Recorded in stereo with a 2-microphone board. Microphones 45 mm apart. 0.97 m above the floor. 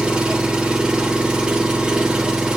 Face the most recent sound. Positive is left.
turn(degrees=-15)  # may be behind; listen again after turning